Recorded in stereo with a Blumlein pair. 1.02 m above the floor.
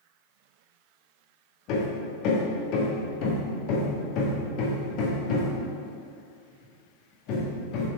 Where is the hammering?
40° left, 1.5 m.